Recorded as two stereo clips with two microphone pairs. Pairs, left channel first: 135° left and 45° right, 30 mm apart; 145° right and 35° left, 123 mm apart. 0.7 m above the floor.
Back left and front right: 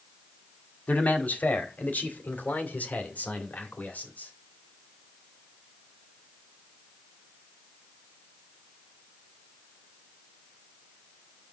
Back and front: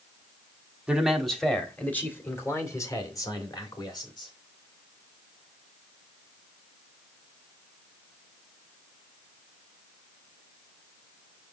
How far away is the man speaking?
About 1.6 m.